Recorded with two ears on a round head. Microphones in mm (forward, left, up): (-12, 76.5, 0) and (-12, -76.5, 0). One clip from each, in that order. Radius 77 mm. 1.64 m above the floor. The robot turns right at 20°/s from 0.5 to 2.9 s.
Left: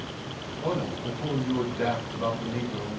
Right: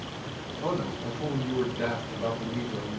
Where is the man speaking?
5° left, 2.0 m; by 3.0 s 50° left, 2.0 m.